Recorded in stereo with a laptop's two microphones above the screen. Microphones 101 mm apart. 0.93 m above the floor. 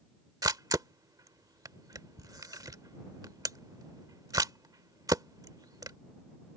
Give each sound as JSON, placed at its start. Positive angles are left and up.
{"t": 0.4, "sound": "a camera shutter", "side_deg": -35}